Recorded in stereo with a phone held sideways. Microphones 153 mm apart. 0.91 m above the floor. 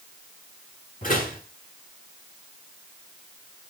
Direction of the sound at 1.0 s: 65° left (ahead or behind).